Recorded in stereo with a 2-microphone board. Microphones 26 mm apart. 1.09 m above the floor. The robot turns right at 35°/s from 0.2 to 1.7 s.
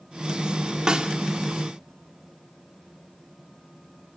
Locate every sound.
0.9 s a snare drum: 30° right (ahead or behind), 1.7 m; by 1.1 s 40° right (ahead or behind), 1.7 m